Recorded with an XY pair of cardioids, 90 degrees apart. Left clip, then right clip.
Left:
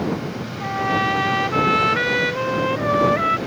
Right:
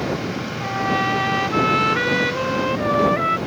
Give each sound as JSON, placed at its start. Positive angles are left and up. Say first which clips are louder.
{"t": 0.6, "sound": "a trumpet", "louder": "left 1 dB", "azimuth_deg": 10}